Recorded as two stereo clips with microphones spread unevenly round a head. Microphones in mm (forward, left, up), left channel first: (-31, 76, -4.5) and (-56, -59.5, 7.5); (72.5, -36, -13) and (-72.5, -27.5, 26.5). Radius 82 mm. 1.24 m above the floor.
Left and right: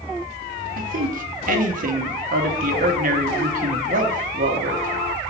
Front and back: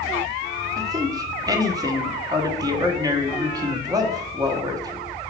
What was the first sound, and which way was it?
A man speaking, 115° right.